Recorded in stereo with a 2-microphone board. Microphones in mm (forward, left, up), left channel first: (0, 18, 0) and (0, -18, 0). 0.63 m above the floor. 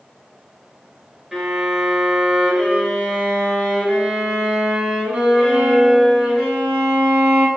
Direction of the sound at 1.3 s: 20° right (ahead or behind).